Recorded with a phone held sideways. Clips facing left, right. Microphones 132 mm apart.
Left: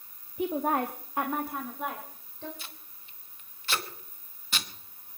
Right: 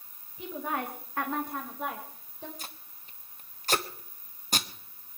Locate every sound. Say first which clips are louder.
0.4 s a woman speaking: left 6 dB; 65° left (ahead or behind), 1.1 m; by 2.5 s 10° right (ahead or behind), 3 m
2.6 s tape being pulled: right 2 dB; 45° right (ahead or behind), 1.1 m